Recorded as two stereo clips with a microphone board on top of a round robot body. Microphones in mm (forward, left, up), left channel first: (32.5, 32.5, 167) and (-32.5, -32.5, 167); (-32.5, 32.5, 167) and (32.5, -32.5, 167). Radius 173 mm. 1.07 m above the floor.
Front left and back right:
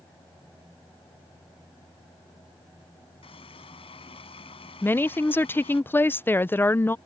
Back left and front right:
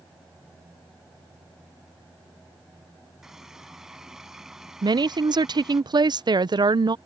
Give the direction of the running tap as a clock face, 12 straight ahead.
11 o'clock.